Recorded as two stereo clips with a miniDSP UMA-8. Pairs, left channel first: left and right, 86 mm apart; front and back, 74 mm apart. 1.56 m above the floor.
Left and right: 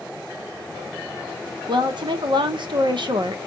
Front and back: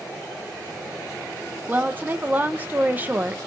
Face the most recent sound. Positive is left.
turn(degrees=-115)